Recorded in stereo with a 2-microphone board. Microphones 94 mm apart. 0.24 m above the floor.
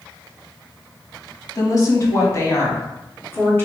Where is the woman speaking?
40° left (ahead or behind), 1.4 m; by 3.6 s 25° left (ahead or behind), 2 m.